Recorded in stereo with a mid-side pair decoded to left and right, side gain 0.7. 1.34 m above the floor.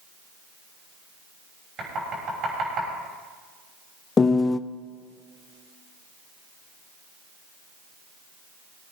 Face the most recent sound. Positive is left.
turn(degrees=25)